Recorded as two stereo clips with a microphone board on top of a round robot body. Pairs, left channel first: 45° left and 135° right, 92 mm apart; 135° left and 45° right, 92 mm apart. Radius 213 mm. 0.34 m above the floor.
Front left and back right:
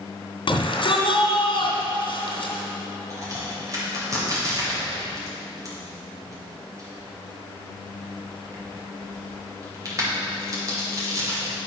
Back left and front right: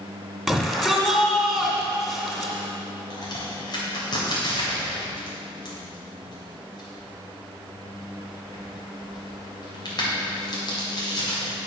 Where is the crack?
175° left, 3 m.